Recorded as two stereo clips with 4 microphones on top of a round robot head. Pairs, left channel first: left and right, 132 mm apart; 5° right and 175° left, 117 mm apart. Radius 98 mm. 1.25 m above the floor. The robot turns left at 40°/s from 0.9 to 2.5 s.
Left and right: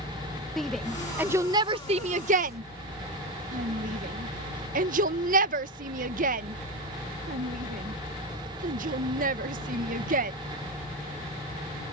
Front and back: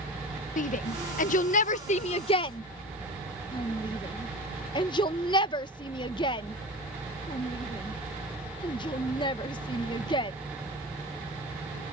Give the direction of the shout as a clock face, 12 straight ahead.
12 o'clock.